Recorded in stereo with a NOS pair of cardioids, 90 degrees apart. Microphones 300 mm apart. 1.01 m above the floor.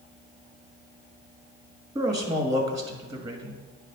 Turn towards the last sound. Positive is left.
turn(degrees=-15)